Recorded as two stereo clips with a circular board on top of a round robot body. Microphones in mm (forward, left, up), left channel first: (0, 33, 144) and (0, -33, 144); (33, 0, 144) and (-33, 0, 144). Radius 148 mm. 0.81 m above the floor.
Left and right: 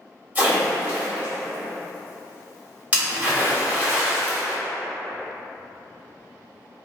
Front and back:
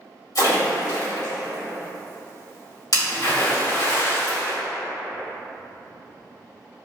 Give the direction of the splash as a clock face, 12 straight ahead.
1 o'clock.